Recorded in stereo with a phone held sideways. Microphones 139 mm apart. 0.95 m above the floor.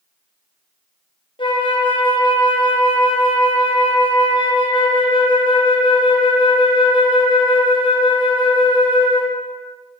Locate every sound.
1.4 s a flute: 40° left (ahead or behind), 0.9 m